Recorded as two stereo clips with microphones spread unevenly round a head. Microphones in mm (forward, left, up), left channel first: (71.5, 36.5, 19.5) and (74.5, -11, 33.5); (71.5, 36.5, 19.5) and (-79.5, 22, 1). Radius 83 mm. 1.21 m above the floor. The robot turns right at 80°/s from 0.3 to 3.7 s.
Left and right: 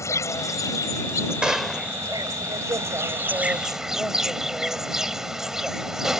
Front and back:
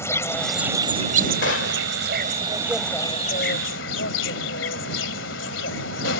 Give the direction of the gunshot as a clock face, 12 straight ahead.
1 o'clock.